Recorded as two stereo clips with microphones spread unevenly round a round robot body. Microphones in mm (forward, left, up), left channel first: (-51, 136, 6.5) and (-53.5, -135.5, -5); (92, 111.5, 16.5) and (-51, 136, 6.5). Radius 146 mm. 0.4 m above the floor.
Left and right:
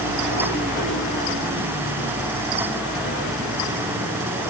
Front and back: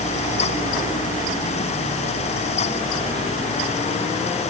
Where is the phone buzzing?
No phone buzzing in this recording.